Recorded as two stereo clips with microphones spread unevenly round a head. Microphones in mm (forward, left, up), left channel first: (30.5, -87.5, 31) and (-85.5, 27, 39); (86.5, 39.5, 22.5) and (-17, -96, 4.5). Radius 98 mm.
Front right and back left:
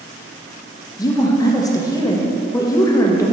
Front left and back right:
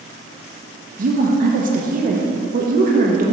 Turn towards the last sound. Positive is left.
turn(degrees=-110)